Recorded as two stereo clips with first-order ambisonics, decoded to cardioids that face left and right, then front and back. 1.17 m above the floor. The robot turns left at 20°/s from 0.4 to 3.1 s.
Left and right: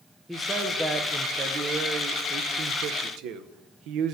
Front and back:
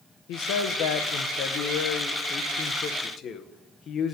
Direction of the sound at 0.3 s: Straight ahead.